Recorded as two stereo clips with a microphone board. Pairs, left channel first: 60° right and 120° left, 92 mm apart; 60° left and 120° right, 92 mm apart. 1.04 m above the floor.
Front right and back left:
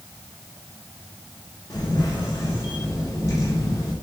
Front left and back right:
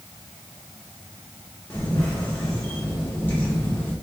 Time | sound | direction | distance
1.7 | a camera shutter | 5° right | 0.9 m